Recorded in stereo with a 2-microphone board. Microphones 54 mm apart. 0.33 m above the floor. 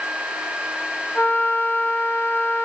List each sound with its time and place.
1.1 s a flute: 40° left (ahead or behind), 0.7 m